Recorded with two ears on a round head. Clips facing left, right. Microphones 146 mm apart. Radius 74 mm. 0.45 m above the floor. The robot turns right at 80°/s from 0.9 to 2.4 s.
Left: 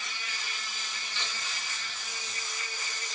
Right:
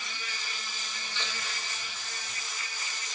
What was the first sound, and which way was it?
An insect, 90° right.